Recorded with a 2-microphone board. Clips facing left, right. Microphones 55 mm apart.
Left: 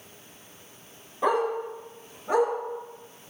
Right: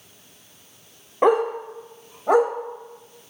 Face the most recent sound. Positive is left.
turn(degrees=-80)